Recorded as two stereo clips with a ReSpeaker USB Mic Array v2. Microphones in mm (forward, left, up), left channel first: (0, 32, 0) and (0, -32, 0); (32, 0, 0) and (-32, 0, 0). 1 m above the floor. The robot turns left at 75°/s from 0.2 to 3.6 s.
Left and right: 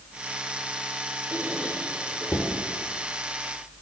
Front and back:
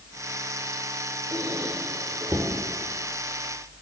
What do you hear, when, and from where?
1.3 s a squeak: 145° right, 1.3 m; by 2.5 s 125° left, 1.3 m